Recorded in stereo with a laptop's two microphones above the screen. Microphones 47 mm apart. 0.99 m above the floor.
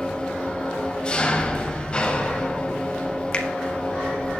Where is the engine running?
20° left (ahead or behind), 1.4 m.